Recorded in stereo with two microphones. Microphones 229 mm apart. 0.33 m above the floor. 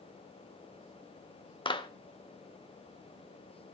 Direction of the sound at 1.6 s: 20° left (ahead or behind).